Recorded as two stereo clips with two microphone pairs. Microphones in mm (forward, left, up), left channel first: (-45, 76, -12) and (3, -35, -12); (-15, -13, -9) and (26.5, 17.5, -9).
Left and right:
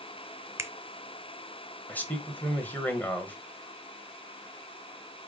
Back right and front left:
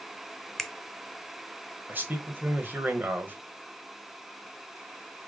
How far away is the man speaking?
About 1.5 m.